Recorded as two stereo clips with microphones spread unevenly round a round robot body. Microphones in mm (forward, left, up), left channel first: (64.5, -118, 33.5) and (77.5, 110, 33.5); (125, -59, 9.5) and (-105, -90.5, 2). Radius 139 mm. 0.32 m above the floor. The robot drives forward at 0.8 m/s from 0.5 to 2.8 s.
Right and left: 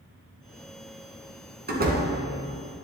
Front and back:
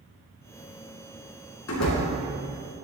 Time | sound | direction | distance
1.7 | a door slam | 40° left | 2.5 m